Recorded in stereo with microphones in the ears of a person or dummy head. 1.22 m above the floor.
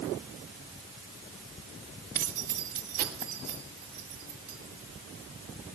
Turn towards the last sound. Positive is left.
turn(degrees=-50)  # may be behind; listen again after turning